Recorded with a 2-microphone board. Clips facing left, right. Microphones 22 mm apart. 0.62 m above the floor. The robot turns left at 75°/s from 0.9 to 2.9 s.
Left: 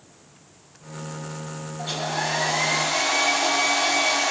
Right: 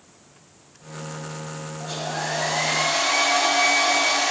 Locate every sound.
1.8 s a hair dryer: 70° left, 2.5 m; by 4.3 s 15° right, 2.5 m